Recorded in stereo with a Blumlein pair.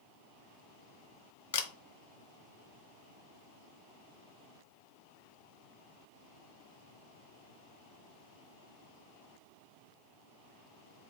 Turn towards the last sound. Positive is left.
turn(degrees=55)